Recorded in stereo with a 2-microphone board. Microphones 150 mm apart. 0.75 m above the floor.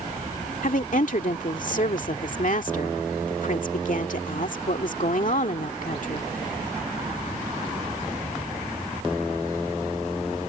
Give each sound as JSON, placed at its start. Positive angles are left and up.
{"t": 0.6, "sound": "a woman speaking", "side_deg": 60}